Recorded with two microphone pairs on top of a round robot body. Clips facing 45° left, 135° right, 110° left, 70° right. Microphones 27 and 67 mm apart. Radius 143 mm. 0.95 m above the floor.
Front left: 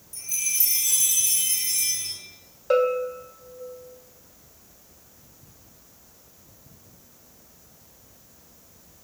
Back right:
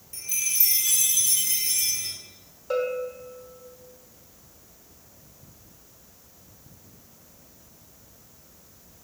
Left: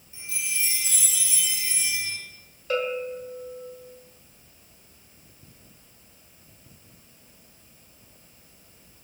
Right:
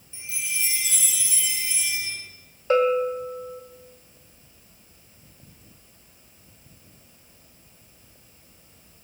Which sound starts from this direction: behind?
A chime, at 0.1 s.